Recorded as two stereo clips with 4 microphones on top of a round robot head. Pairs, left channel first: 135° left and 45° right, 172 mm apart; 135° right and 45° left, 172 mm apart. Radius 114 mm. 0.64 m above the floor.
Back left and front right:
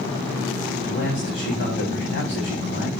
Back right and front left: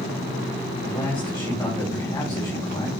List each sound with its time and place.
0.8 s a man speaking: 155° left, 4.5 m